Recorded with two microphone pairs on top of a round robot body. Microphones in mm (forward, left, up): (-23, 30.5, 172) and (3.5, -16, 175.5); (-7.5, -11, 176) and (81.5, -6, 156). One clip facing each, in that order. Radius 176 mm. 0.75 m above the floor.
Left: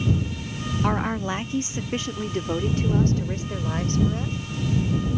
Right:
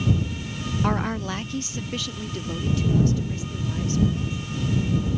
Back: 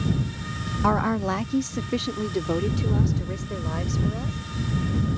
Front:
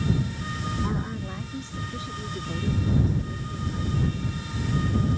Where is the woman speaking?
155° right; by 4.4 s 160° left.